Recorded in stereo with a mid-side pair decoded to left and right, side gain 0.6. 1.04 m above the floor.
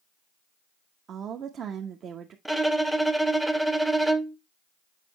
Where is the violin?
Straight ahead, 0.8 m.